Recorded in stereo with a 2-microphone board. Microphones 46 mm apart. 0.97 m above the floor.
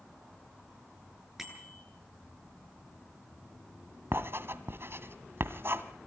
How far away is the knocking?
No knocking in this recording.